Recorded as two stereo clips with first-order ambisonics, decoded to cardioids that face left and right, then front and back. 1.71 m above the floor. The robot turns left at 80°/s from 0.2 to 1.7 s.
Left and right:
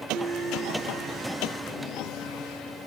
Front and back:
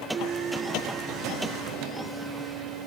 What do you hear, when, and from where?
0.1 s a piano: 160° right, 3 m; by 1.4 s 105° left, 3 m